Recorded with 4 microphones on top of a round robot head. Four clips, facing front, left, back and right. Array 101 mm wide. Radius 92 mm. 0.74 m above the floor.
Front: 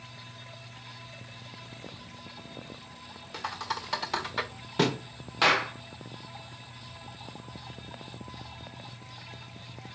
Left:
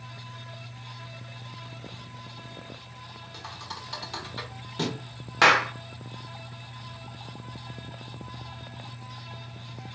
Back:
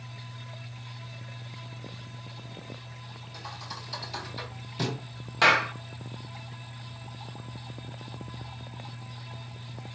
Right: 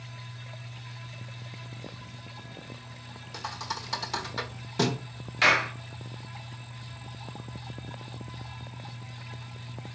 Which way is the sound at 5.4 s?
90° left.